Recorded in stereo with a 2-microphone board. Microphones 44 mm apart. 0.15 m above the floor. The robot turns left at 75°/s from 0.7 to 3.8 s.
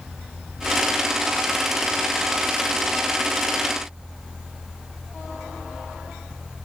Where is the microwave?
No microwave in this recording.